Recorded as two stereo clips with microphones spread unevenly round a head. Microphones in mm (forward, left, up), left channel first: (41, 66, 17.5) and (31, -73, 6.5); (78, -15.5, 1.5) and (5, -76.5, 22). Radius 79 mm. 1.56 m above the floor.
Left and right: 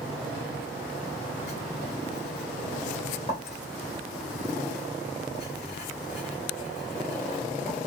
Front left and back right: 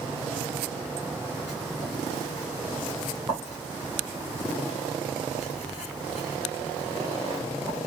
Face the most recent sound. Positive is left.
turn(degrees=140)